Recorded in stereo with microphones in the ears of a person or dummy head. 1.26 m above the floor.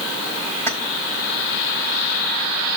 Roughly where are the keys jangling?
Centre.